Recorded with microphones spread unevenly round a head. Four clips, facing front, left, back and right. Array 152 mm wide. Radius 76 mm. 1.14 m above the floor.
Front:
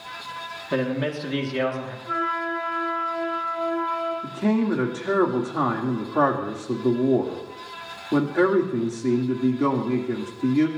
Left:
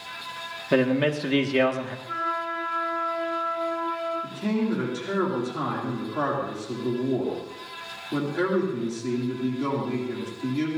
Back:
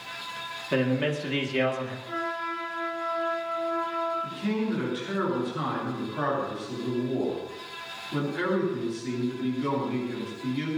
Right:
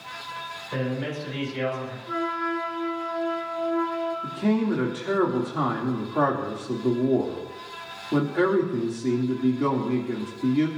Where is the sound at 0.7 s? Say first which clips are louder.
Left 8 dB, front 1 dB; 90° left, 1.9 m.